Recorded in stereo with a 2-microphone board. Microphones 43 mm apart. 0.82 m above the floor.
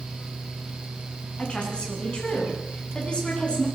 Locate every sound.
1.4 s a woman speaking: 25° left (ahead or behind), 8 m